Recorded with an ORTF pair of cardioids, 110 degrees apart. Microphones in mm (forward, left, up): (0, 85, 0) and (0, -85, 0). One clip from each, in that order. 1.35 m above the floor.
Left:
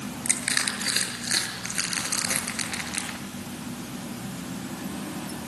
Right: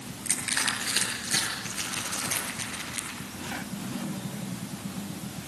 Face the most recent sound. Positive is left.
turn(degrees=45)